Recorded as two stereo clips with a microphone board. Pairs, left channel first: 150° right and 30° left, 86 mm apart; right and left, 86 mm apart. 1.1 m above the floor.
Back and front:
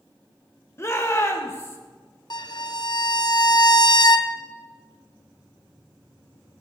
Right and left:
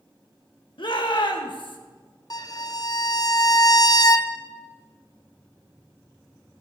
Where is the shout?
95° right, 1.6 m.